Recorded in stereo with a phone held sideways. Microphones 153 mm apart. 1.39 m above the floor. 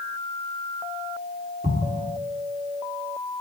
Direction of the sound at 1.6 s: 55° right (ahead or behind).